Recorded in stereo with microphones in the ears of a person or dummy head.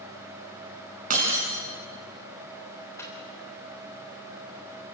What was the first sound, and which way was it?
Breaking glass, 50° right (ahead or behind).